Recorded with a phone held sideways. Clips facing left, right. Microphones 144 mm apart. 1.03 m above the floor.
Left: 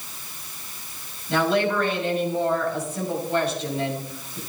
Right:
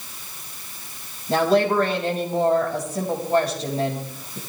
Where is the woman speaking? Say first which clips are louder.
Right 3 dB; 40° right (ahead or behind), 6 m.